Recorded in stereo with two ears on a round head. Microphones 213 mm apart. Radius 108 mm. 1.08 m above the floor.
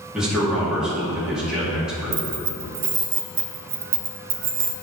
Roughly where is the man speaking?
Centre.